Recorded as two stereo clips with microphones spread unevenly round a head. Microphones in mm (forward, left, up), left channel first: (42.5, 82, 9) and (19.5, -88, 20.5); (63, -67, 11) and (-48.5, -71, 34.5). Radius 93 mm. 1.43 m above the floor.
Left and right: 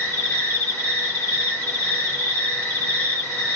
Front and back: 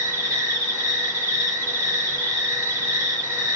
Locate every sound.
0.0 s an insect: 160° left, 1.6 m